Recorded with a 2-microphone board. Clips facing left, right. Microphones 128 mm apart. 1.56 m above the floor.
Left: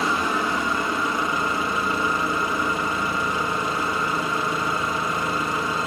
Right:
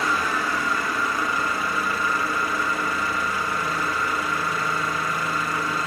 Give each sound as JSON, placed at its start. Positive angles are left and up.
{"t": 0.0, "sound": "an engine running", "side_deg": 20, "distance_m": 1.9}